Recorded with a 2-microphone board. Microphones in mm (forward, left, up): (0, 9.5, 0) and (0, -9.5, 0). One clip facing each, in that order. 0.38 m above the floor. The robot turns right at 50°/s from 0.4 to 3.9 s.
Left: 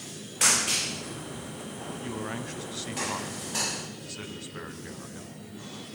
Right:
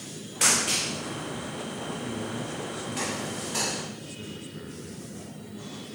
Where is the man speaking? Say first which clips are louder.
Right 1 dB; 40° left, 2.5 m; by 5.3 s 135° left, 2.5 m.